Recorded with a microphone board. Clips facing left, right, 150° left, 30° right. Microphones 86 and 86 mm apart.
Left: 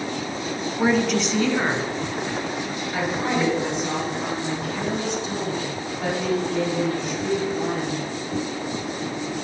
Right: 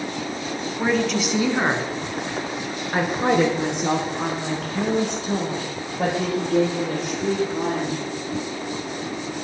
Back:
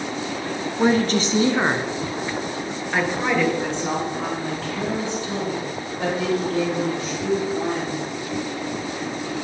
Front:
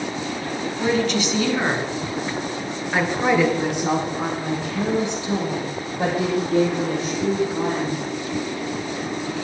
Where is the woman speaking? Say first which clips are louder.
Left 1 dB, back 3 dB; 160° left, 1.6 m; by 8.0 s 95° right, 7.5 m.